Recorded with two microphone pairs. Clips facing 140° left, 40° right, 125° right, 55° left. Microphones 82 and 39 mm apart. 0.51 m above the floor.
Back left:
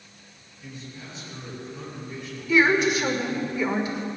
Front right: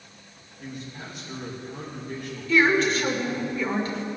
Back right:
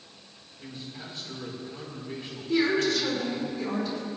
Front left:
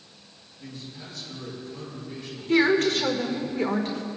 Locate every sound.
0.6 s a man speaking: 65° right, 3.5 m
2.5 s a woman speaking: 65° left, 1.6 m